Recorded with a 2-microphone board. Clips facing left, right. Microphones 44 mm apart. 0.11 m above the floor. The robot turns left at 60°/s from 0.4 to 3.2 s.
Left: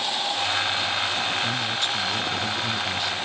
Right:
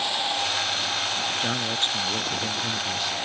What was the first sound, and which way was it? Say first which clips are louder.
A man speaking: left 1 dB; 80° right.